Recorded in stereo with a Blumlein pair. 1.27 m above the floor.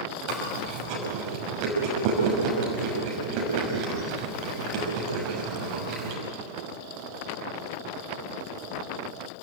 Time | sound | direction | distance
0.3 | chewing | 40° right | 6 m